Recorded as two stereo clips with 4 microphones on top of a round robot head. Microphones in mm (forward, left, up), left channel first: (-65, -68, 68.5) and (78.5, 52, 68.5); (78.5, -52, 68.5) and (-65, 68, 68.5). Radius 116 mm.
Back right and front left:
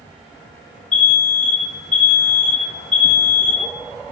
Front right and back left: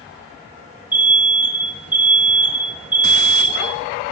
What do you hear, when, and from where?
0.9 s an alarm: 145° right, 2.5 m